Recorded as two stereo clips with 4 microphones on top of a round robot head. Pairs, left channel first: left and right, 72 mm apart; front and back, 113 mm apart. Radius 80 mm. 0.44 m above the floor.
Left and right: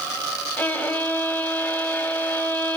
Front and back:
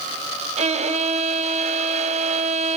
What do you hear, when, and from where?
0.6 s a violin: 165° left, 1.5 m